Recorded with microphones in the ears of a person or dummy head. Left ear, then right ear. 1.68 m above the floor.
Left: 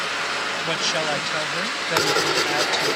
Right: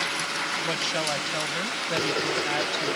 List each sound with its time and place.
0.6 s a woman speaking: 25° left (ahead or behind); by 3.0 s 15° left (ahead or behind)
1.9 s writing: 45° left (ahead or behind)